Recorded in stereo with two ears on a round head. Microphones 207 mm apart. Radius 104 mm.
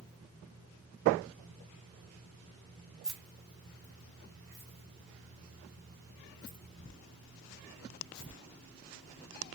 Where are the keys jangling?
Centre (ahead or behind), 0.9 m; by 8.3 s 25° left (ahead or behind), 3.5 m.